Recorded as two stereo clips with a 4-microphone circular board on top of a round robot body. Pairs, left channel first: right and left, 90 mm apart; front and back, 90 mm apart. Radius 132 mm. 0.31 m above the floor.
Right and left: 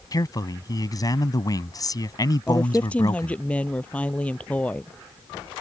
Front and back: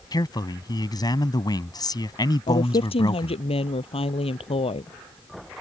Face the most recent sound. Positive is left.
turn(degrees=-15)